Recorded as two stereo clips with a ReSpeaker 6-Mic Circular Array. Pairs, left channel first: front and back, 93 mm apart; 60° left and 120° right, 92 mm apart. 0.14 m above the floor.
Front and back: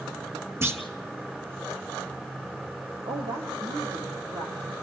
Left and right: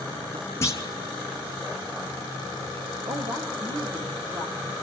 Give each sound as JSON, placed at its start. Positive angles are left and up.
{"t": 0.6, "sound": "a clunk", "azimuth_deg": 120, "distance_m": 1.3}
{"t": 3.0, "sound": "a woman speaking", "azimuth_deg": -150, "distance_m": 5.5}